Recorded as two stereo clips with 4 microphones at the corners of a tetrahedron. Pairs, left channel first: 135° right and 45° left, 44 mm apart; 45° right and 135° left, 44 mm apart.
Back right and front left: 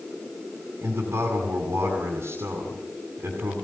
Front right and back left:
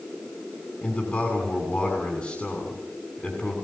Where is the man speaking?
10° left, 6.5 m.